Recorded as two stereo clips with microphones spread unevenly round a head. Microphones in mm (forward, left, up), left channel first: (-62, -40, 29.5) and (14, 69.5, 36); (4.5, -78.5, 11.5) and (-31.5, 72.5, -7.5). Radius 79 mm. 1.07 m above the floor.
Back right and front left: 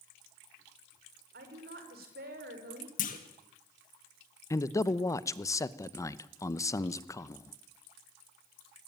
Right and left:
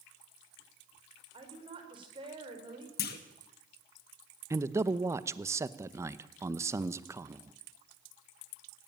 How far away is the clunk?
About 1.8 m.